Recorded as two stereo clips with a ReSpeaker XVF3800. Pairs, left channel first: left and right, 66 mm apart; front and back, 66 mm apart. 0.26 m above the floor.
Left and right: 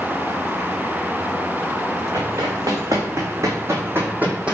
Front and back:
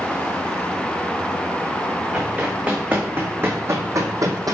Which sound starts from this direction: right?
Running footsteps, at 2.1 s.